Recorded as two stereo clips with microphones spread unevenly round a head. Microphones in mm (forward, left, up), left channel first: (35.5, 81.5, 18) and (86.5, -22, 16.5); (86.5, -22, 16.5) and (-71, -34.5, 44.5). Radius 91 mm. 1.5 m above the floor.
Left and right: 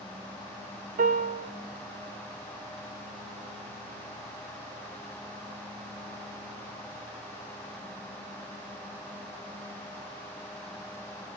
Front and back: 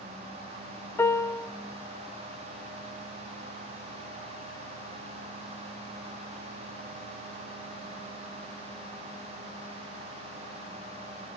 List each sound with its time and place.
1.0 s a piano: 75° right, 1.0 m